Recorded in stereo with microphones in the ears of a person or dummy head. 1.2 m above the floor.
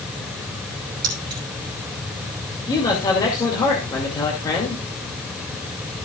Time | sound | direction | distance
1.0 | keys jangling | 30° right (ahead or behind) | 3 m
2.7 | a man speaking | 15° left (ahead or behind) | 2 m